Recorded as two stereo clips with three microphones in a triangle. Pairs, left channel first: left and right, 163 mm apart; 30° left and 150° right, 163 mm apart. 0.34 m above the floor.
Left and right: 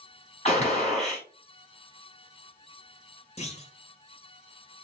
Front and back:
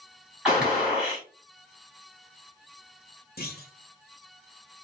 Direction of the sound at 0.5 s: 125° left.